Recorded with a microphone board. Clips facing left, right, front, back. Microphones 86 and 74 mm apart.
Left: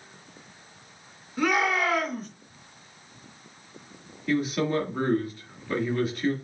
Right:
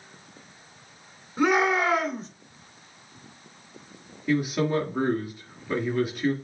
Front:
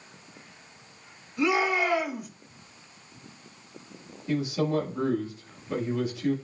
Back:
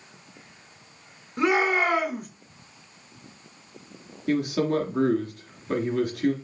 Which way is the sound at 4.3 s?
170° right.